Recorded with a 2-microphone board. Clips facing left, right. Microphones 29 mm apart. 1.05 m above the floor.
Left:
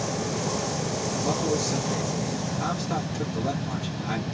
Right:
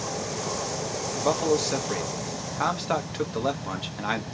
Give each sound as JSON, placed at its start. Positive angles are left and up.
{"t": 1.2, "sound": "a man speaking", "side_deg": -65, "distance_m": 1.3}